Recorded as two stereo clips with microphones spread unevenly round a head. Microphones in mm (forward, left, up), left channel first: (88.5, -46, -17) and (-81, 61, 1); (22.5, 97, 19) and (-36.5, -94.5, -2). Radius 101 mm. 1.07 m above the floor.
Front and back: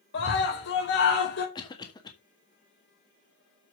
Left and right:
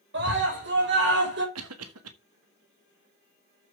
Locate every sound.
0.1 s a scream: 70° right, 4 m
1.6 s a cough: 100° right, 1.7 m